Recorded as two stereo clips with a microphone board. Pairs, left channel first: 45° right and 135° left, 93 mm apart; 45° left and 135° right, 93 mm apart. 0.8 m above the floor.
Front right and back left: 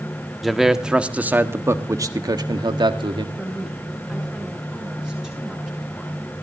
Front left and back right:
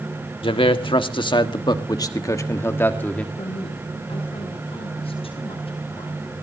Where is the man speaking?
45° left, 1.6 m; by 3.2 s 120° left, 1.6 m.